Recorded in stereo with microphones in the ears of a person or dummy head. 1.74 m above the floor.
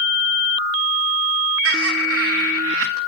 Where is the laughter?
70° right (ahead or behind), 1.4 m.